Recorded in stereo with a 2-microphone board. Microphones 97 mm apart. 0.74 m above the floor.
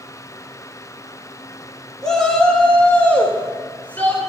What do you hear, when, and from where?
2.0 s a shout: 5° left (ahead or behind), 1.8 m; by 4.2 s 20° left (ahead or behind), 3 m